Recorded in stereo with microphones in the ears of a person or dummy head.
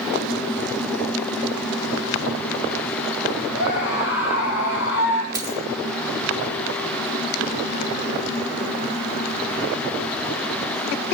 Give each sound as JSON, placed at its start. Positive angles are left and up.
{"t": 3.5, "sound": "a scream", "side_deg": 75, "distance_m": 7.5}
{"t": 5.3, "sound": "a dropped coin", "side_deg": -20, "distance_m": 3.0}